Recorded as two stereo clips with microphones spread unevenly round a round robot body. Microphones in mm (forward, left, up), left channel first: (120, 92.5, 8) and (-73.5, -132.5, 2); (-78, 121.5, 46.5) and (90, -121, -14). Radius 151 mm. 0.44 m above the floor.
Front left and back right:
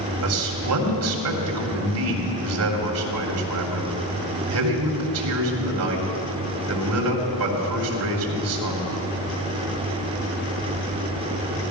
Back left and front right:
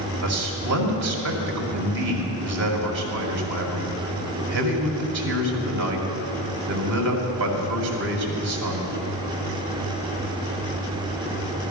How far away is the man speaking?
About 2.5 m.